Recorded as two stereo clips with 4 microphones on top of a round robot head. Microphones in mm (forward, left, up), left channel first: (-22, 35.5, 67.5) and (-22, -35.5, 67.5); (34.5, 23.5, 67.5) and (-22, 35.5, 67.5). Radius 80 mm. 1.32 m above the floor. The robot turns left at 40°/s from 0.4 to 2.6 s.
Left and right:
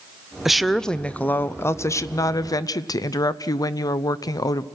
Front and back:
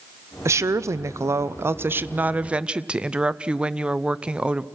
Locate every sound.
0.5 s a woman speaking: 175° right, 0.7 m; by 4.7 s 100° left, 0.7 m